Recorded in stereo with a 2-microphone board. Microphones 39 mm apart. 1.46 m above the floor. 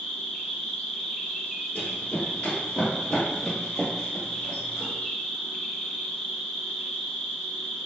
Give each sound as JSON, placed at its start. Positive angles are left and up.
{"t": 0.0, "sound": "an insect", "side_deg": 15, "distance_m": 1.5}
{"t": 1.8, "sound": "running footsteps", "side_deg": 35, "distance_m": 1.9}